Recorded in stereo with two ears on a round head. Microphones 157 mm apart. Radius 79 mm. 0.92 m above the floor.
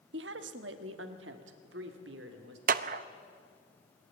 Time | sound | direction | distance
0.1 | a woman speaking | 70° right (ahead or behind) | 1.3 m
2.7 | a clap | 50° right (ahead or behind) | 0.8 m